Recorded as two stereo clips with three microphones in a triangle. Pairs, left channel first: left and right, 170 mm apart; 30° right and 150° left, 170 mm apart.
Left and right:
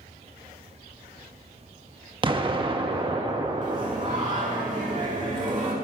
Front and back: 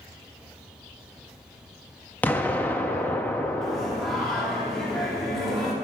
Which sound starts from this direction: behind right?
Singing, at 3.6 s.